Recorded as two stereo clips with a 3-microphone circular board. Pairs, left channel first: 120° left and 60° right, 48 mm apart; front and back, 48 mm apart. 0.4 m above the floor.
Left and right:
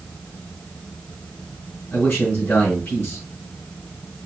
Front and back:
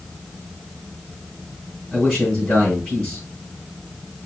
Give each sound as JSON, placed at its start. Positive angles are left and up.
{"t": 1.9, "sound": "a man speaking", "azimuth_deg": 80, "distance_m": 3.0}